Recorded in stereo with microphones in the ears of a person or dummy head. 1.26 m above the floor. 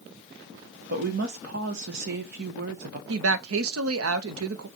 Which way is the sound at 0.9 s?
60° right (ahead or behind).